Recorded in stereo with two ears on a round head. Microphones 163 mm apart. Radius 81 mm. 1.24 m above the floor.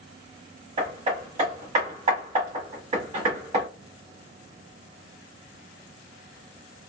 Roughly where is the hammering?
Right.